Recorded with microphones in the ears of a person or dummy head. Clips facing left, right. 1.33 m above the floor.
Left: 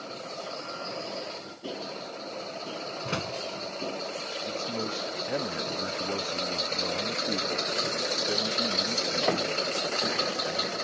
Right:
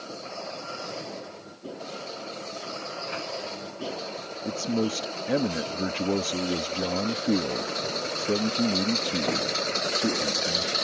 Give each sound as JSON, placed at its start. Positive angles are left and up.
{"t": 3.0, "sound": "a door slam", "side_deg": 50}
{"t": 4.5, "sound": "a man speaking", "side_deg": -45}